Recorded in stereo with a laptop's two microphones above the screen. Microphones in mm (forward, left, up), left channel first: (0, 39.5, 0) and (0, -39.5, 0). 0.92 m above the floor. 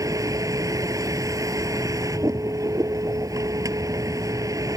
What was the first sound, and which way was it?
A vehicle, 45° right (ahead or behind).